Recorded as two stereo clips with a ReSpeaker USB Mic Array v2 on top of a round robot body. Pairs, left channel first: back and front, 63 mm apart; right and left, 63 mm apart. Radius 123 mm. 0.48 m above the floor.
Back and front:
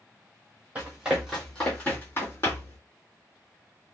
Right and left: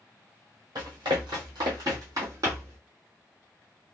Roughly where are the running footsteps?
Left.